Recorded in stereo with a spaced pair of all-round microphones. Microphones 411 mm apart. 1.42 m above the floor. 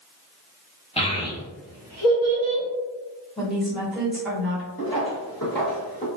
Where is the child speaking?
15° left (ahead or behind), 0.8 m; by 2.6 s 15° right (ahead or behind), 1.5 m.